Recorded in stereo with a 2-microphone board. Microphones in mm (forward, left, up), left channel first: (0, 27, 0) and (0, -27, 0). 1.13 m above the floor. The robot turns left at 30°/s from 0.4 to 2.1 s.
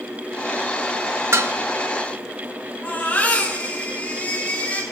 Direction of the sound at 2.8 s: 30° left (ahead or behind).